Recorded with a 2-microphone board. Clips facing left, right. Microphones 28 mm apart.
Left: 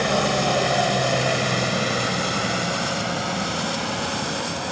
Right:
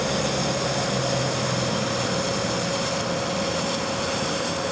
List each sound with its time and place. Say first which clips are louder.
0.0 s a helicopter: left 4 dB; 60° left (ahead or behind); by 4.7 s 40° left (ahead or behind)